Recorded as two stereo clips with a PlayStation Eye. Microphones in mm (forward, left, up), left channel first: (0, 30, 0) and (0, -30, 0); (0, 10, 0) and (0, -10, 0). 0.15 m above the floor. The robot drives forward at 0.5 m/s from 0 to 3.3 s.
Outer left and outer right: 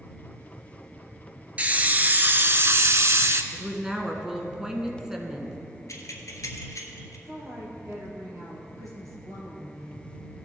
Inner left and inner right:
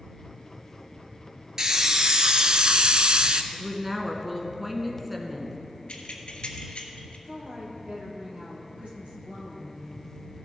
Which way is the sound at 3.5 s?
10° right (ahead or behind).